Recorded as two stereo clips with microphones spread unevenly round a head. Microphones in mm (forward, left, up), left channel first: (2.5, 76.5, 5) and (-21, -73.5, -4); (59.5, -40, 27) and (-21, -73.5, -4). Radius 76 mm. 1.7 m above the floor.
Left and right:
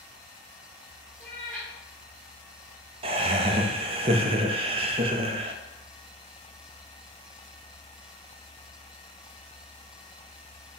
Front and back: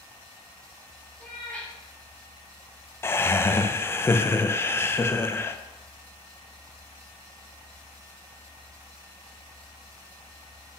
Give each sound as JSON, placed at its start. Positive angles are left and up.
{"t": 1.2, "sound": "a cat meowing", "azimuth_deg": 10, "distance_m": 1.6}
{"t": 3.0, "sound": "laughter", "azimuth_deg": -40, "distance_m": 0.5}